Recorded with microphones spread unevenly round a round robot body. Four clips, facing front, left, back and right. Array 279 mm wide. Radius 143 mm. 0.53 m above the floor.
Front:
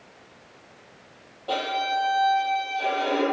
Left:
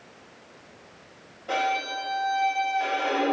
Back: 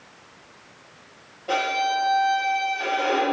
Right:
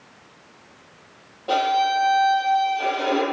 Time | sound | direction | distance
1.5 | a violin | 90° right | 4.5 m